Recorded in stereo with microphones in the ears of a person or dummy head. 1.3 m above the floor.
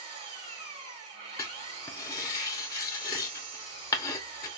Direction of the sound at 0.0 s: 40° right (ahead or behind).